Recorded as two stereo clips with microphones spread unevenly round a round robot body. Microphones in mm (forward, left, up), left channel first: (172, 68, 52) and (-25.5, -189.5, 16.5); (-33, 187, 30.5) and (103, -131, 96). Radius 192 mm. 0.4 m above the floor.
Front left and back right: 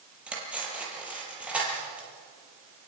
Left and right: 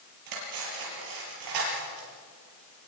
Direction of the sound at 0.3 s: 40° right.